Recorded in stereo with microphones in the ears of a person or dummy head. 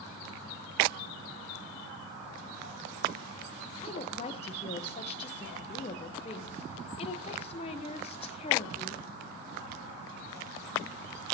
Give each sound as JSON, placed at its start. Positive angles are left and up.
{"t": 3.8, "sound": "a woman speaking", "side_deg": 35, "distance_m": 0.9}